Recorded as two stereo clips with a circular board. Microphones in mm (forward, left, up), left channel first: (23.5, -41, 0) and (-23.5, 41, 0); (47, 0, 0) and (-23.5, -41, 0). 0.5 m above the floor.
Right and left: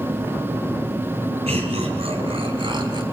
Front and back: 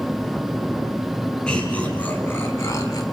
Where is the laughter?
110° left, 4 m; by 3.0 s 75° left, 3.5 m.